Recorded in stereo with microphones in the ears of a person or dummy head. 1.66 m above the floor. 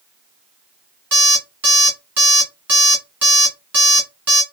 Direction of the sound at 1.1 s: 5° right (ahead or behind).